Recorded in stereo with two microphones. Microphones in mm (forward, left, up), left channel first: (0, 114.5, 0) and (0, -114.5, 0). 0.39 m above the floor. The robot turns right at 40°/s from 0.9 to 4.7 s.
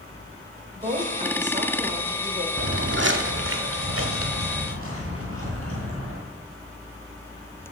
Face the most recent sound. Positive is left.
turn(degrees=-80)